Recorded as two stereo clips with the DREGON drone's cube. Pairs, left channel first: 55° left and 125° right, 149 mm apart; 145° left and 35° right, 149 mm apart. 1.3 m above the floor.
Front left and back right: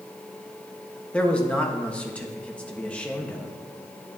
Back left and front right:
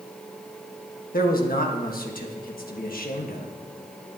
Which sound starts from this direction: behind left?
A man speaking, at 1.1 s.